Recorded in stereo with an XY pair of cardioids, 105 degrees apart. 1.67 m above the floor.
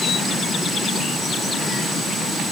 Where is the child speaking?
No child speaking in this recording.